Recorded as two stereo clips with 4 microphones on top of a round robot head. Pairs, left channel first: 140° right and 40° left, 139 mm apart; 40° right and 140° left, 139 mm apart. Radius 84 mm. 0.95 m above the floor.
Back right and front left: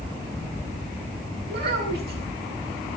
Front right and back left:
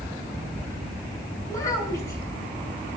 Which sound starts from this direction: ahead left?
A child speaking, at 1.5 s.